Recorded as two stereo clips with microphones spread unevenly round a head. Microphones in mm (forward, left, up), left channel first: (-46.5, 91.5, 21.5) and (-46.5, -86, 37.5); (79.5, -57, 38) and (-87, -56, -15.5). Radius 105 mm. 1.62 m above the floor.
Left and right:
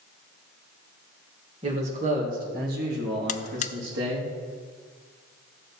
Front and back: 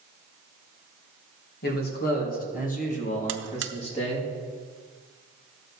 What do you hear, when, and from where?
1.6 s a man speaking: 25° right, 2.5 m; by 4.3 s 55° right, 3 m
3.3 s a buzzer: 140° left, 0.5 m